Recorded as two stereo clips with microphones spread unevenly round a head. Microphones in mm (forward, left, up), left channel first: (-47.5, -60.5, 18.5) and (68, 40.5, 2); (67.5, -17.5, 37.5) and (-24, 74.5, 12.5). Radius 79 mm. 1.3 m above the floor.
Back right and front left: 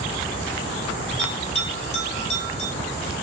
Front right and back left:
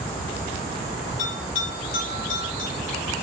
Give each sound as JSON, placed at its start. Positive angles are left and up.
{"t": 1.2, "sound": "a bell", "azimuth_deg": -90, "distance_m": 1.9}